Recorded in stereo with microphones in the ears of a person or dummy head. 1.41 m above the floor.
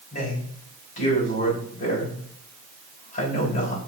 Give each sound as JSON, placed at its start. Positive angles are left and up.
{"t": 0.1, "sound": "a man speaking", "side_deg": 50, "distance_m": 3.5}